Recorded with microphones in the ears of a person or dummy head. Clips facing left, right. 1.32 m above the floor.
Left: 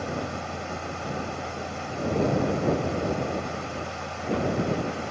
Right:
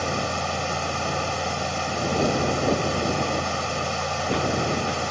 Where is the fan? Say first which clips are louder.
Right 4 dB; 65° right (ahead or behind).